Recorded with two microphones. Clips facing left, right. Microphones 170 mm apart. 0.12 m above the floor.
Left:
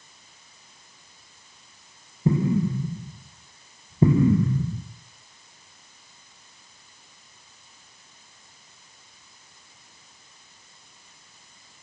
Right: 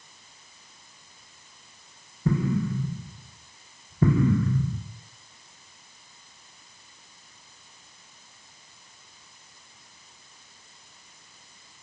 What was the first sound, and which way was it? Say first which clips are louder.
An explosion: left 3 dB; 20° left (ahead or behind).